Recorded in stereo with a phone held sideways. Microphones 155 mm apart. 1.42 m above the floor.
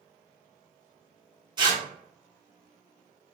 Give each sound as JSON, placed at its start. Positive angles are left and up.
{"t": 1.6, "sound": "tearing paper", "side_deg": -30, "distance_m": 0.8}